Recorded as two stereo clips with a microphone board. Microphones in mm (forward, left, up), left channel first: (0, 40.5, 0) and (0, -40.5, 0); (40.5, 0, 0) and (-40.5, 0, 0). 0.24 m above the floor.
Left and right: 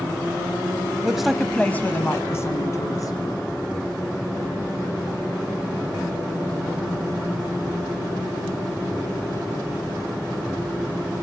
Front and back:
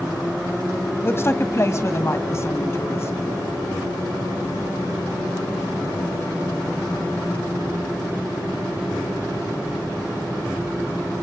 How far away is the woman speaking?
About 1.2 m.